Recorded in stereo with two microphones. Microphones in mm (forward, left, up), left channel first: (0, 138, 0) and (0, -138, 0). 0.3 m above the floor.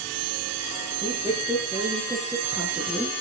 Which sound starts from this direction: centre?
A woman speaking, at 1.0 s.